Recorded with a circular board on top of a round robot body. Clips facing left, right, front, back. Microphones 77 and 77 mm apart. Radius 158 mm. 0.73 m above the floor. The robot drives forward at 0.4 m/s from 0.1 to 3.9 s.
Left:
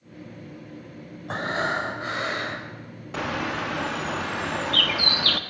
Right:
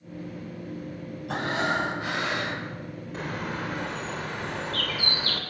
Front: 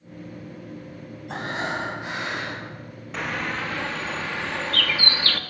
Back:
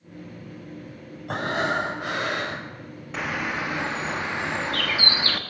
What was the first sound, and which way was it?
Breathing, 145° left.